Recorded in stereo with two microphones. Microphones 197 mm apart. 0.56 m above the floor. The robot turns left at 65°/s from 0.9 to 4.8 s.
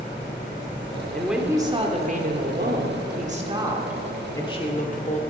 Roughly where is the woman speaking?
Ahead.